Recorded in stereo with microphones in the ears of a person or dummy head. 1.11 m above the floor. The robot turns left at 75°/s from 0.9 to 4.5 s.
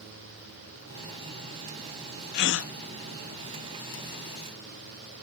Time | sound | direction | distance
2.3 | a gasp | 55° left (ahead or behind) | ?